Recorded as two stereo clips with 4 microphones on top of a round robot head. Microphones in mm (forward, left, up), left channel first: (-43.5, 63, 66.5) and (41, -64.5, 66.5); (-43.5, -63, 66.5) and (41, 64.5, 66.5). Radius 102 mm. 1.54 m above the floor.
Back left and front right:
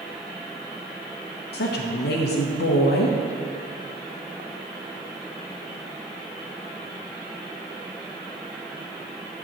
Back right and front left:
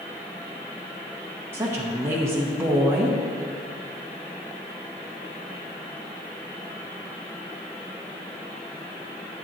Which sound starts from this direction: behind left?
A woman speaking, at 1.5 s.